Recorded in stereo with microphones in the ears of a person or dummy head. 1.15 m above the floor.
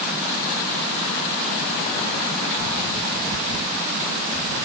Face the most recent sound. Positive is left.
No sound to turn to.